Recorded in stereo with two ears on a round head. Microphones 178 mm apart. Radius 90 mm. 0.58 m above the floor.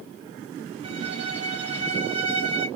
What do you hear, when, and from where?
0.8 s a violin: 30° right (ahead or behind), 1.4 m